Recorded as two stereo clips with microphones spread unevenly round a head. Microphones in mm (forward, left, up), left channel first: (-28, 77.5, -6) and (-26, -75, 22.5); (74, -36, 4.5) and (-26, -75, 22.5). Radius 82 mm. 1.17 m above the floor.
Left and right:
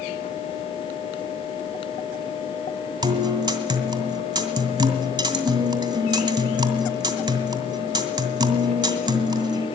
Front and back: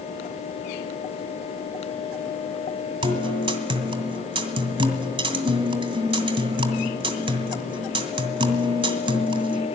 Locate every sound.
3.0 s a guitar: 140° right, 2 m